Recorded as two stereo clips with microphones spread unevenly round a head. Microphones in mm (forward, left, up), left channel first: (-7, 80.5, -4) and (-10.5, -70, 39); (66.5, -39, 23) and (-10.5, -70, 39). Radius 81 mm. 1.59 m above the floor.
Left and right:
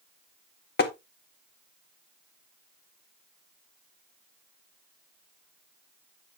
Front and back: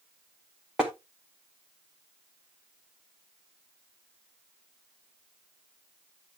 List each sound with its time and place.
0.8 s tapping: 120° left, 1.8 m